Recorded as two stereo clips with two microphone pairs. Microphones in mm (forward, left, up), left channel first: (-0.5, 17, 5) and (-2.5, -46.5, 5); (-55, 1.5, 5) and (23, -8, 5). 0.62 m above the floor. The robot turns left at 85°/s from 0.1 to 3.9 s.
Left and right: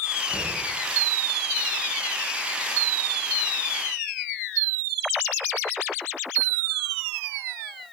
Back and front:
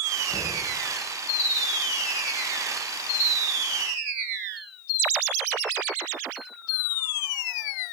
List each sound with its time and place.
0.3 s knocking: 175° left, 6 m; by 0.6 s 145° left, 6 m